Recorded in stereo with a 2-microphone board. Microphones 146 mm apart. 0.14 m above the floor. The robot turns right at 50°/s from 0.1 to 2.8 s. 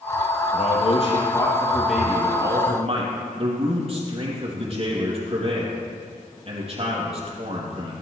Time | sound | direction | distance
0.5 | a man speaking | 115° left | 4 m